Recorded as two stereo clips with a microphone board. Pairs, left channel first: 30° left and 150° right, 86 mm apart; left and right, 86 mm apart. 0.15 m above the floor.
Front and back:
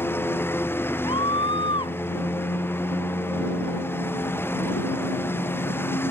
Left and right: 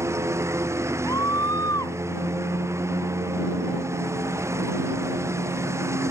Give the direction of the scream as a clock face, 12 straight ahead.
11 o'clock.